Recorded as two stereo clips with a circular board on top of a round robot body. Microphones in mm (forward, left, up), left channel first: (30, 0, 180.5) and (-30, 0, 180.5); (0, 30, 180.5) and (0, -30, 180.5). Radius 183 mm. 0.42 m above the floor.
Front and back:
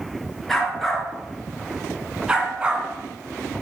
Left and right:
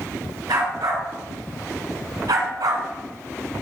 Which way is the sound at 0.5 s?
85° right.